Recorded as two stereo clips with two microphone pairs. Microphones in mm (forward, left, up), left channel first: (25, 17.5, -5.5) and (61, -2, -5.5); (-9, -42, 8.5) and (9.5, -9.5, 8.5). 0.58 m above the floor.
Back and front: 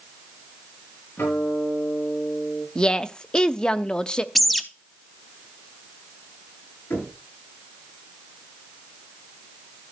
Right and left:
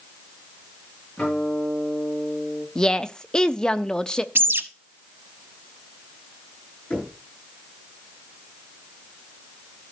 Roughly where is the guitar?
Behind.